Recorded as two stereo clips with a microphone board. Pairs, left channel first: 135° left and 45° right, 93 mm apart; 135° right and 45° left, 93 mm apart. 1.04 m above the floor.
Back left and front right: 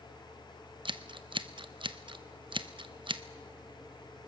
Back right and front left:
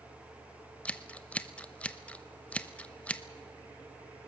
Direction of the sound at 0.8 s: 60° right.